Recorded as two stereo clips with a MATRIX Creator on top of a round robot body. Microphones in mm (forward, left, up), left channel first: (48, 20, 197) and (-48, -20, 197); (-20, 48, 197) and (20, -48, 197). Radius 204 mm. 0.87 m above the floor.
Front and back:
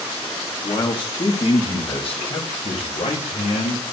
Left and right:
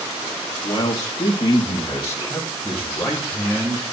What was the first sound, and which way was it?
A man speaking, 70° left.